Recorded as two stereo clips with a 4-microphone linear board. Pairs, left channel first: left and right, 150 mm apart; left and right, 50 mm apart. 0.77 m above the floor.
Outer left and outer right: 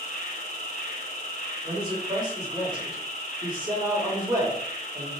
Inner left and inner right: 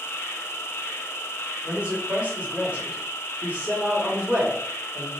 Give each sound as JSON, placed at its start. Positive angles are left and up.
{"t": 0.0, "sound": "an insect", "side_deg": 65, "distance_m": 1.4}
{"t": 1.6, "sound": "a man speaking", "side_deg": -25, "distance_m": 2.5}